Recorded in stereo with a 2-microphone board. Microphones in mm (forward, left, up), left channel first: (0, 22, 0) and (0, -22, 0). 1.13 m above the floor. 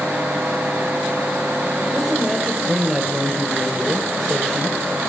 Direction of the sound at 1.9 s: 10° right (ahead or behind).